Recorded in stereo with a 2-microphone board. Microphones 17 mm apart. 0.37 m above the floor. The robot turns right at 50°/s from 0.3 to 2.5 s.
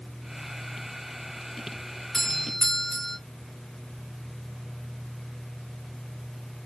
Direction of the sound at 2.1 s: 30° left (ahead or behind).